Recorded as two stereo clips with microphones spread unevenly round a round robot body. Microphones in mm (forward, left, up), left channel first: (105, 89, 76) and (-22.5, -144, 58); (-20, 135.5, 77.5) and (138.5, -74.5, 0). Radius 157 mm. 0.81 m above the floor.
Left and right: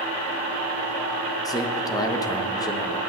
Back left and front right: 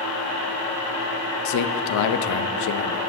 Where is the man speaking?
140° left, 0.5 m.